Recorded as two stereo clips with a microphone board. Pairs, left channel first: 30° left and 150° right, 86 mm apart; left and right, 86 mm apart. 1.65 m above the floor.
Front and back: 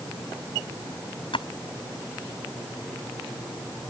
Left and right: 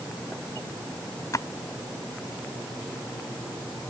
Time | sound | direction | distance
1.3 | a splash | 40° left | ?